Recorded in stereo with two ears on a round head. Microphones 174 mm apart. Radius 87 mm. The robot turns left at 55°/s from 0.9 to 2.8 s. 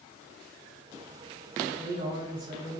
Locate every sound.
1.6 s a man speaking: 20° right, 1.5 m; by 2.8 s 85° right, 1.5 m